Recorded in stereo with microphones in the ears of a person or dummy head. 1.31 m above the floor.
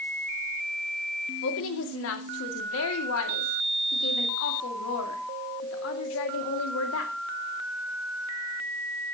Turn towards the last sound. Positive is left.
turn(degrees=75)  # may be behind; listen again after turning